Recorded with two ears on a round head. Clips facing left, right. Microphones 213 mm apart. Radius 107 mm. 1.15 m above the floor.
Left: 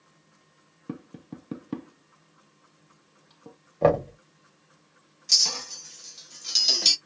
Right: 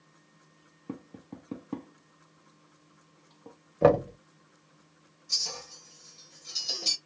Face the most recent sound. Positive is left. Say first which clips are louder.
# left 3 dB
turn(degrees=75)  # may be behind; listen again after turning